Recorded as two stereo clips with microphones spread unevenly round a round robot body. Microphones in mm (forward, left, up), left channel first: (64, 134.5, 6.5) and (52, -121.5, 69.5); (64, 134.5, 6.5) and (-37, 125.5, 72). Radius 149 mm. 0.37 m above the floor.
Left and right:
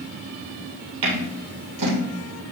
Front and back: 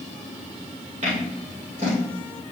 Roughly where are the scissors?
Behind right.